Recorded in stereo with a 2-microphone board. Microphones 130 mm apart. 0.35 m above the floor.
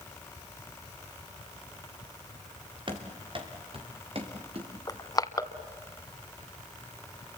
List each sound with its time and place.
2.9 s running footsteps: 40° right (ahead or behind), 3.5 m; by 4.7 s 45° right (ahead or behind), 4.5 m
4.9 s crushing: 30° left (ahead or behind), 1.1 m